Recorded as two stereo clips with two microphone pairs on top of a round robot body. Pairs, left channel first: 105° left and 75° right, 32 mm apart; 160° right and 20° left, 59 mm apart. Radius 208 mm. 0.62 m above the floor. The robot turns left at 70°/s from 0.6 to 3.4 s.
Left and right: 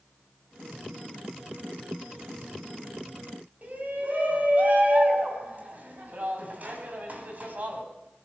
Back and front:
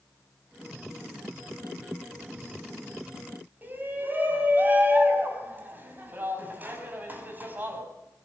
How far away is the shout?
About 6 m.